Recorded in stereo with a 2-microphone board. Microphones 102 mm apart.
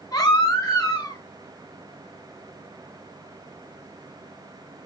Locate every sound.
0.1 s a baby crying: 40° left (ahead or behind), 2.5 m